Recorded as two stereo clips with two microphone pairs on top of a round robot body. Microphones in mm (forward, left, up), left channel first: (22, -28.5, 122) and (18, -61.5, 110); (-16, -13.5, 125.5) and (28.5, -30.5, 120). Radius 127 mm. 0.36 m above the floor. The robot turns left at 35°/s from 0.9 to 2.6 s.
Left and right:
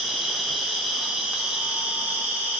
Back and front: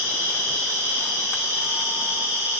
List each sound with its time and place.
0.0 s an insect: 15° right, 3 m; by 2.6 s 75° right, 3 m